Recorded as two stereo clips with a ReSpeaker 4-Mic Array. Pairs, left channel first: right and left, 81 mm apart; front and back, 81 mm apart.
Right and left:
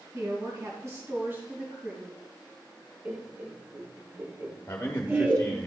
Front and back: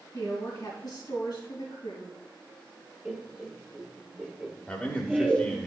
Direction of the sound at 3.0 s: 115° left.